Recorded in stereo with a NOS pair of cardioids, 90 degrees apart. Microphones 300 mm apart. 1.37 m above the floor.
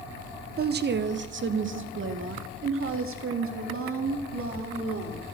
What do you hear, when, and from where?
0.6 s a woman speaking: 30° right, 0.7 m; by 5.2 s 45° right, 3 m